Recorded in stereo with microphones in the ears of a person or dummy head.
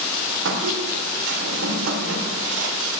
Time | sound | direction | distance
0.5 | a squeak | 75° right (ahead or behind) | 3.5 m